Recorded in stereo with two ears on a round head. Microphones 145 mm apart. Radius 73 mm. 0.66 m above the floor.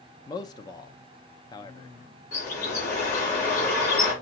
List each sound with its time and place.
0.3 s a man speaking: 25° left (ahead or behind), 0.5 m
2.3 s a bird: 60° left (ahead or behind), 3 m